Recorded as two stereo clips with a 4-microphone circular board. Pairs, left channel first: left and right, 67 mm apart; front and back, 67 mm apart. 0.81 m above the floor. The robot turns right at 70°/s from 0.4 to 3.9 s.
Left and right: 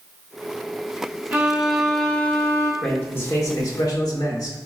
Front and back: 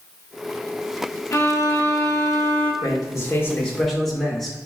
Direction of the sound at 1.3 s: 35° right.